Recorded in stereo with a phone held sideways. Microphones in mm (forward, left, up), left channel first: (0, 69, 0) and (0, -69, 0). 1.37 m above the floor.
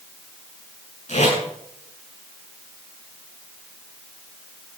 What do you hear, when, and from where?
1.1 s tape being pulled: 70° left (ahead or behind), 8 m